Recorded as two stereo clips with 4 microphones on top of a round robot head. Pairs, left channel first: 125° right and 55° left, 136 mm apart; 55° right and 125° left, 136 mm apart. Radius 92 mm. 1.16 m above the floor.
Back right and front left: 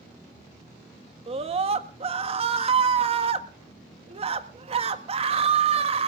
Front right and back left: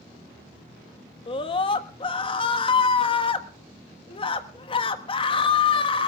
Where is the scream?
Straight ahead, 1.4 m.